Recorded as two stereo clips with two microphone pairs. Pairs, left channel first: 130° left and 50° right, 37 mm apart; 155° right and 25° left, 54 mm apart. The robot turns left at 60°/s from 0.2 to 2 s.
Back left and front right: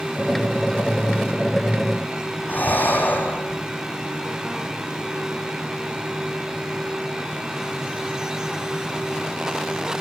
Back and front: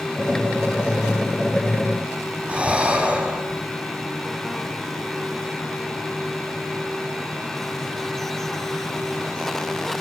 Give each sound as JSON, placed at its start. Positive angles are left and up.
{"t": 2.5, "sound": "breathing", "azimuth_deg": 100, "distance_m": 7.5}